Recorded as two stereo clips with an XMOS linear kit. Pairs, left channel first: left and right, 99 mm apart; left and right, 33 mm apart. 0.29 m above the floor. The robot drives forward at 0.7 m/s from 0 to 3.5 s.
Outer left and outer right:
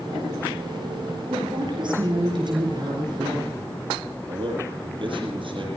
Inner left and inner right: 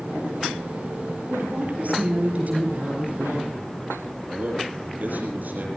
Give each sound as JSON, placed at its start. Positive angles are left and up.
{"t": 1.3, "sound": "a woman speaking", "side_deg": -55, "distance_m": 7.5}
{"t": 4.3, "sound": "a man speaking", "side_deg": -60, "distance_m": 7.0}